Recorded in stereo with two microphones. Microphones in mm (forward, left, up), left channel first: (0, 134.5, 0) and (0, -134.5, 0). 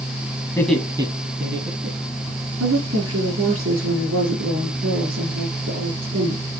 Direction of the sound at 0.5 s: 15° left (ahead or behind).